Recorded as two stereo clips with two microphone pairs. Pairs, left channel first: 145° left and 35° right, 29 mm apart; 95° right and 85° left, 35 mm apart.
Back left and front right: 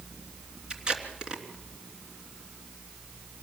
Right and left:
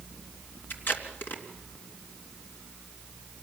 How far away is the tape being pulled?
About 3 m.